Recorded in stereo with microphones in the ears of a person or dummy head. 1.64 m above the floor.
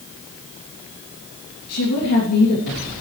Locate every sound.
1.7 s a woman speaking: 85° left, 3 m